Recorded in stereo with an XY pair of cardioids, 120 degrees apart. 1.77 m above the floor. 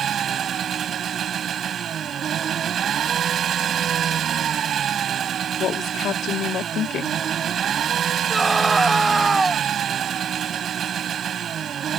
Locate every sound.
0.0 s an engine running: 50° right
5.6 s a woman speaking: 60° left
8.3 s a scream: 15° right